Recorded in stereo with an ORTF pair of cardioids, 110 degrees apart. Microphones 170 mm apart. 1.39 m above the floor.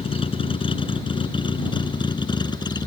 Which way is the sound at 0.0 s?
35° left.